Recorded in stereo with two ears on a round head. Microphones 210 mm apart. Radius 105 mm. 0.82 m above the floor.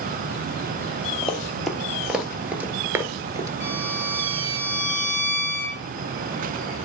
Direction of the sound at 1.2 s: Centre (ahead or behind).